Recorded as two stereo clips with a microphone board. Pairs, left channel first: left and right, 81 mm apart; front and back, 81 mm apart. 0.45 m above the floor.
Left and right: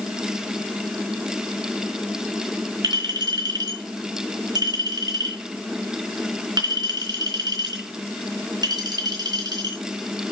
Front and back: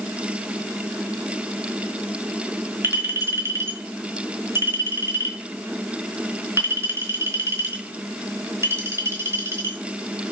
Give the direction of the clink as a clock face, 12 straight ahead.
4 o'clock.